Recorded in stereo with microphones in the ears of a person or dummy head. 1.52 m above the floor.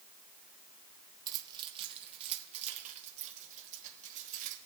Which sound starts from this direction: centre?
Keys jangling, at 1.3 s.